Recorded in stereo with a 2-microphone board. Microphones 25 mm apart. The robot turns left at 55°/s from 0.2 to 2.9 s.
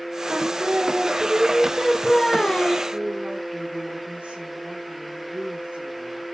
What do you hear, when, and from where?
0.3 s singing: 95° right, 0.6 m; by 2.8 s 125° left, 0.6 m
2.9 s a woman speaking: 65° right (ahead or behind), 3.5 m